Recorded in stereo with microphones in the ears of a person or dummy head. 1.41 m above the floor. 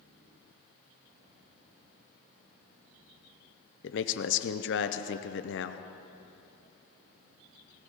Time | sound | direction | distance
3.8 | a man speaking | 60° left (ahead or behind) | 0.7 m